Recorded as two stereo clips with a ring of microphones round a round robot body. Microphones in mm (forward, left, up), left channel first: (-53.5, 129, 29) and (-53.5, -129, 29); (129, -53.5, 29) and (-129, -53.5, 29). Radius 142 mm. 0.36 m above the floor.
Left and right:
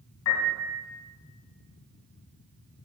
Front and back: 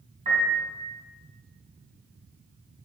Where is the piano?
115° left, 2.5 m.